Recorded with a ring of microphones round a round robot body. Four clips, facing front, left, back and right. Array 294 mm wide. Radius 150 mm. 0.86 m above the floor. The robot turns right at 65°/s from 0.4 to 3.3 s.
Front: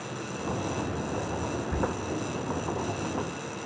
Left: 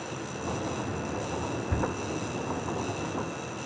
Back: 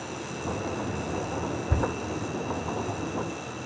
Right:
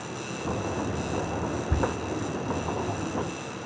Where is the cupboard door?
160° right, 1.3 m; by 1.9 s 145° right, 1.3 m.